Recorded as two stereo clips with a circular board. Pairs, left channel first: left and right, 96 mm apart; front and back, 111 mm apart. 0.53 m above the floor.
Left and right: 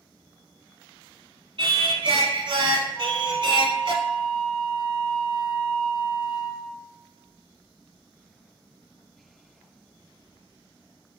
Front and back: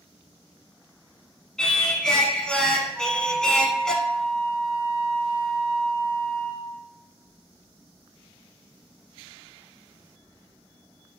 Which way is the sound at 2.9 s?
90° left.